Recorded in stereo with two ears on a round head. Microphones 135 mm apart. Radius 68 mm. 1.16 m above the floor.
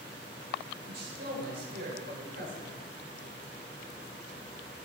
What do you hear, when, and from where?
0.9 s a man speaking: 80° right, 5.5 m; by 2.6 s 85° right, 4.5 m